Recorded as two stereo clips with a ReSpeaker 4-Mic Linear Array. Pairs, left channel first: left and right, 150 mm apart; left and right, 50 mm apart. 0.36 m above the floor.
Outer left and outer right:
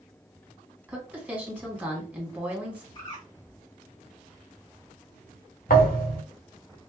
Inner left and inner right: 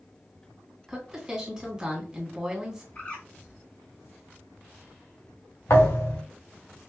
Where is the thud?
70° left (ahead or behind), 2.5 m.